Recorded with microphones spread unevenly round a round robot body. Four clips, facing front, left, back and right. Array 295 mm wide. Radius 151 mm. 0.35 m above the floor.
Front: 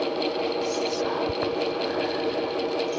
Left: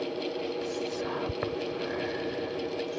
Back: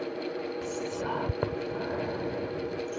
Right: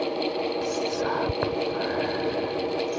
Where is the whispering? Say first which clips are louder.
Right 6 dB, front 7 dB; 150° right.